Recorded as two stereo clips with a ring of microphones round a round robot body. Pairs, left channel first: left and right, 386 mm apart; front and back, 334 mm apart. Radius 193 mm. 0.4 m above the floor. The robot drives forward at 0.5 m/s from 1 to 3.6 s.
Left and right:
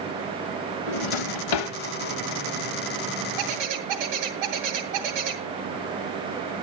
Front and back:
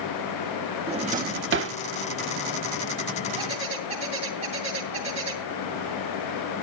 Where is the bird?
105° right, 2.5 m.